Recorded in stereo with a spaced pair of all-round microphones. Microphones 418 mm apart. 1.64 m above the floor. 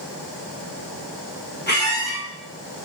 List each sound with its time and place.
1.7 s a squeak: 25° left (ahead or behind), 1.2 m